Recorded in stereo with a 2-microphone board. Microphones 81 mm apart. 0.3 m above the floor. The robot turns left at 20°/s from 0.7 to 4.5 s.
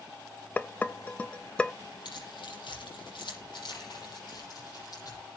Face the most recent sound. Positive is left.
turn(degrees=50)  # may be behind; listen again after turning